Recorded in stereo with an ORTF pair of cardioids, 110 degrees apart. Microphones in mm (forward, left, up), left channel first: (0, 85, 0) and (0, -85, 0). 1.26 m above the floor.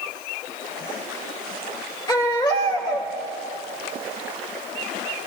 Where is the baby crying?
25° left, 2.5 m.